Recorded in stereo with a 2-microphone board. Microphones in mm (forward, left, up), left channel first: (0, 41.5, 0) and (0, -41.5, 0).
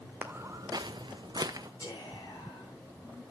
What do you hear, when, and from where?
0.2 s footsteps: 25° right (ahead or behind), 1.0 m; by 1.7 s 50° right (ahead or behind), 1.3 m
1.8 s whispering: 45° left (ahead or behind), 9.5 m